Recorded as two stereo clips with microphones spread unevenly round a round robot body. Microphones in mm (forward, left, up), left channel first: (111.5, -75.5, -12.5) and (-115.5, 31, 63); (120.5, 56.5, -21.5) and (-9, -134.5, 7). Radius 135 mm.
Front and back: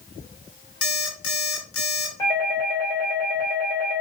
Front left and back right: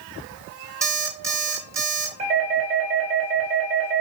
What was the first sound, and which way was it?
An alarm clock, 45° right.